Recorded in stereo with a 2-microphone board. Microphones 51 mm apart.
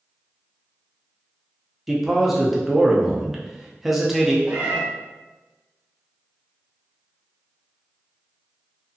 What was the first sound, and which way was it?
A man speaking, 5° right (ahead or behind).